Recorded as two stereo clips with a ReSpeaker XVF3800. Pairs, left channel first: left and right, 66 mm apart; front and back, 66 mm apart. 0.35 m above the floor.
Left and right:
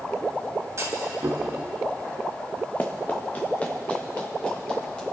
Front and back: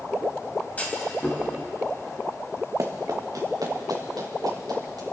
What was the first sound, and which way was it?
A clunk, 60° right.